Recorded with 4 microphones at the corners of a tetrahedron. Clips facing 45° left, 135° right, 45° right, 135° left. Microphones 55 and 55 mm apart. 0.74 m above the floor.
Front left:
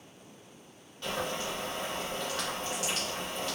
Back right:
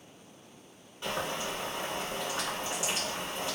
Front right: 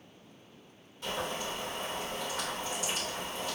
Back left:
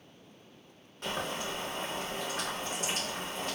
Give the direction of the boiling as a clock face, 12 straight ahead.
7 o'clock.